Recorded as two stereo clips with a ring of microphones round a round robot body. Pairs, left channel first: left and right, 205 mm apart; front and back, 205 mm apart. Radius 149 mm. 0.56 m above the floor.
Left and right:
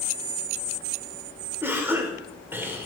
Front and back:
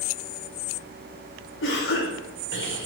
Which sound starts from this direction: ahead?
A cough, at 1.6 s.